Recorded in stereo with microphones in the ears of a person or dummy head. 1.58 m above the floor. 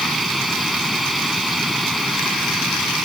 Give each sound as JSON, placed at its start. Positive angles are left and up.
{"t": 0.0, "sound": "a machine running", "side_deg": 0}